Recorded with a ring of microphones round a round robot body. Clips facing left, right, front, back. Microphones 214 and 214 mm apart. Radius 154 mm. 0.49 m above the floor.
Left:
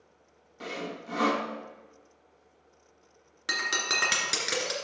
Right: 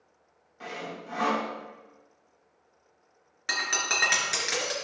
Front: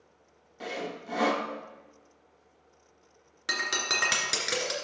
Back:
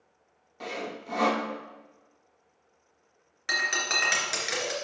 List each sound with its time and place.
0.6 s sawing: 80° left, 1.1 m
3.5 s breaking glass: 45° left, 2.5 m